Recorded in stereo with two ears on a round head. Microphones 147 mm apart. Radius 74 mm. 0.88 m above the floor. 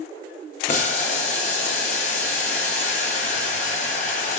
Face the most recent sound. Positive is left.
turn(degrees=45)  # may be behind; listen again after turning